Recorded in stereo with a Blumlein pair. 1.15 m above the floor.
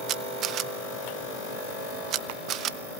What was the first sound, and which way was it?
A camera shutter, 35° right.